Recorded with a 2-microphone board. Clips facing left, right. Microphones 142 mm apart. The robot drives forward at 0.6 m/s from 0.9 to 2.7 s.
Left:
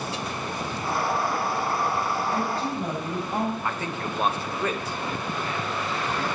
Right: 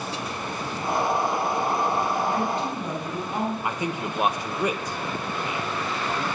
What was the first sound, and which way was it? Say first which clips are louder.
A woman speaking: right 1 dB; 35° left (ahead or behind).